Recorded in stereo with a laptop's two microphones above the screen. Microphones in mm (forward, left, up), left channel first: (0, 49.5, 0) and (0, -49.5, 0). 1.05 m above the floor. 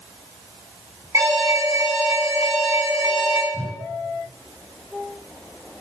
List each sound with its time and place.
1.1 s an alarm: 25° right (ahead or behind), 7 m
3.5 s a whoosh: 35° right (ahead or behind), 5 m